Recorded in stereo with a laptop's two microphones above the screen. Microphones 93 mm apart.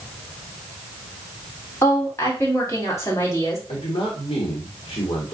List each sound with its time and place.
1.8 s a woman speaking: 30° left (ahead or behind), 3 m
3.7 s a man speaking: 70° left (ahead or behind), 1.6 m